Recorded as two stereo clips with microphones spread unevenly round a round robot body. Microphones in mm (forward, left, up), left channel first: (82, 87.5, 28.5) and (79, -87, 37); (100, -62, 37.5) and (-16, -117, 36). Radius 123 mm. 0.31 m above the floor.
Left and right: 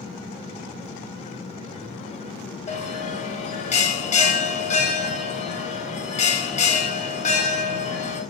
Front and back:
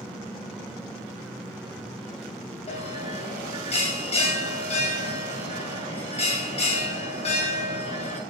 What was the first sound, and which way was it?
A bell, 55° left.